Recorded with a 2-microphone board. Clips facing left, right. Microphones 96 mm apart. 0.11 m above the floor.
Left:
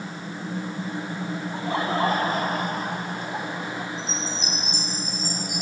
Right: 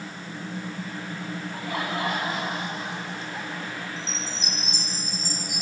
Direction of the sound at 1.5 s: 25° left (ahead or behind).